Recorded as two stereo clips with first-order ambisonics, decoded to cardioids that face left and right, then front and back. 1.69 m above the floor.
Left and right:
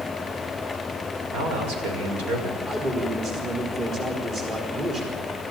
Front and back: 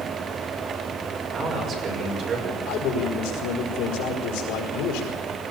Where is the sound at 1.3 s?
120° right, 6 m.